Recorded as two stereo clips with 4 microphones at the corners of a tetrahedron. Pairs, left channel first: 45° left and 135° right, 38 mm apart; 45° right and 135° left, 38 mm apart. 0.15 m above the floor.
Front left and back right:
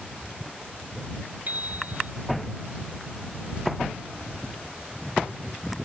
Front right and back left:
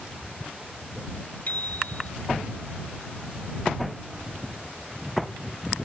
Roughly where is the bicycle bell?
Right.